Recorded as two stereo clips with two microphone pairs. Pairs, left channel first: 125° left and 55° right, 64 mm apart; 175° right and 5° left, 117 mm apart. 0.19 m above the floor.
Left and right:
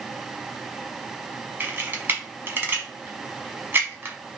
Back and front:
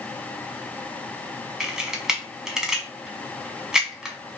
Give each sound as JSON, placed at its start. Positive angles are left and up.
{"t": 1.6, "sound": "a camera shutter", "azimuth_deg": -70, "distance_m": 0.9}